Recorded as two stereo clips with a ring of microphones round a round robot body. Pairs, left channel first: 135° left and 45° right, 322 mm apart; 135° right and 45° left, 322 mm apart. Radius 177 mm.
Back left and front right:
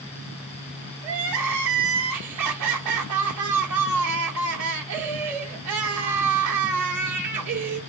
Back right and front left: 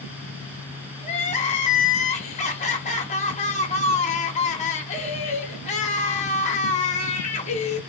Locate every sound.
1.0 s crying: 70° right, 1.2 m